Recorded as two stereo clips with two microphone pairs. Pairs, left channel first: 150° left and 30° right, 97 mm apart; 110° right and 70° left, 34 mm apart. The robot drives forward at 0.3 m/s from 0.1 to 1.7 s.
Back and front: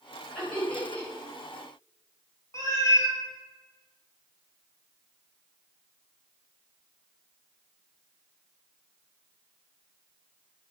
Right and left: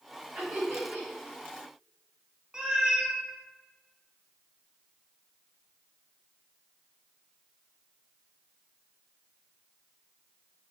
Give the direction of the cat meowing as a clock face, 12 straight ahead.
8 o'clock.